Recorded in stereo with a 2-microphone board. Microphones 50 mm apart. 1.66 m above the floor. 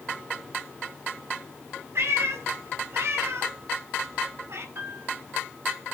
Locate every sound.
1.9 s a cat meowing: 60° right (ahead or behind), 4.5 m
4.8 s a piano: 50° right (ahead or behind), 5 m